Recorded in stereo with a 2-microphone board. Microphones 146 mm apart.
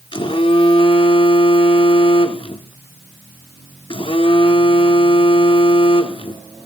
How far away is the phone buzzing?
About 1.4 m.